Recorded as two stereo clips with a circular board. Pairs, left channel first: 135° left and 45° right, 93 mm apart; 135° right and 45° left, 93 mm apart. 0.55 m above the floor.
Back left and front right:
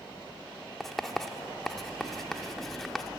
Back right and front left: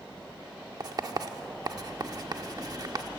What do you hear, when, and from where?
0.8 s writing: 50° left, 1.5 m